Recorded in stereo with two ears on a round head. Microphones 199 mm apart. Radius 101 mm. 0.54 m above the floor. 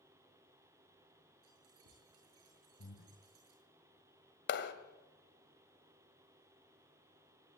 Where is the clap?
55° left (ahead or behind), 2.5 m.